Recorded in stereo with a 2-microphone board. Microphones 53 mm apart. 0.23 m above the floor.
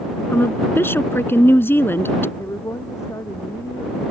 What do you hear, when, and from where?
0.3 s a woman speaking: 45° left (ahead or behind)
2.4 s a woman speaking: 75° left (ahead or behind)